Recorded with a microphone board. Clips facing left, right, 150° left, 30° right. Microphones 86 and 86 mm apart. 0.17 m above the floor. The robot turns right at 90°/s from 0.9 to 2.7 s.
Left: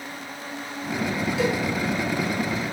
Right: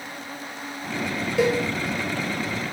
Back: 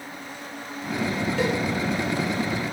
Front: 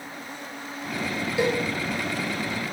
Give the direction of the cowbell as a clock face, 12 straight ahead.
4 o'clock.